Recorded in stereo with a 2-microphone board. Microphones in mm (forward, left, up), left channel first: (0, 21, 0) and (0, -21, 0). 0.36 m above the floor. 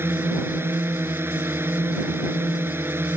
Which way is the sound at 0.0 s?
75° right (ahead or behind).